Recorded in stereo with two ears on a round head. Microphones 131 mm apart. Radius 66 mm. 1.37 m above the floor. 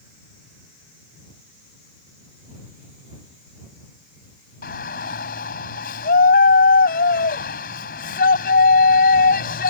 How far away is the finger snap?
I don't hear a finger snap.